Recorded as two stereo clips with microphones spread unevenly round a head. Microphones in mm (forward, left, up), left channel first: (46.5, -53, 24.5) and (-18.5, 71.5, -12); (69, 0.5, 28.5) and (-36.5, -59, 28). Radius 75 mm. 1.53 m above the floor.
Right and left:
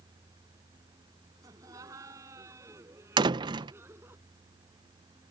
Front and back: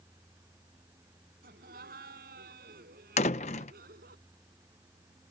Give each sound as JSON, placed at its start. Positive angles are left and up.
{"t": 1.4, "sound": "laughter", "azimuth_deg": -170}
{"t": 3.2, "sound": "a door slam", "azimuth_deg": 50}